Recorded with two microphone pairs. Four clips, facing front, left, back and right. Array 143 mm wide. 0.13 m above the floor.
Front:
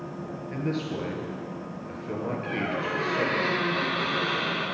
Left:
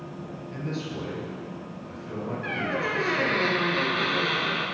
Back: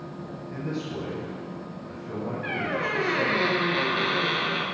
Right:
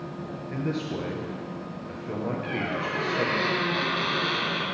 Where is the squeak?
140° left, 1.6 m.